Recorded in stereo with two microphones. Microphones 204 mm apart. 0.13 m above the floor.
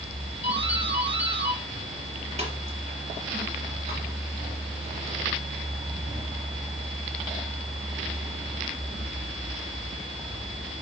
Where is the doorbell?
30° right (ahead or behind), 3 m.